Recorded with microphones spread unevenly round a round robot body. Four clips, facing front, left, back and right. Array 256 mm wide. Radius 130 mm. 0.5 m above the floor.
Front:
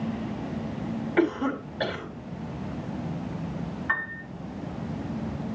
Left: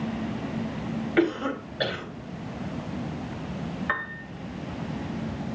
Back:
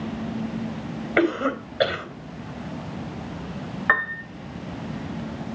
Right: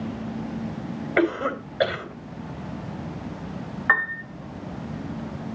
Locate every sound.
1.2 s a cough: 155° right, 3.5 m
3.9 s a piano: 160° right, 1.8 m